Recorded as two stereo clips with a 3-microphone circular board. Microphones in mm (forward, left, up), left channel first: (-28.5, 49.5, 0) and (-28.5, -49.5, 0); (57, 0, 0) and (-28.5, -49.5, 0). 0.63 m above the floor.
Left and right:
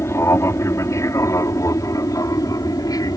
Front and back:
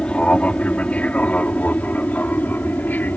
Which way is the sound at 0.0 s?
95° left.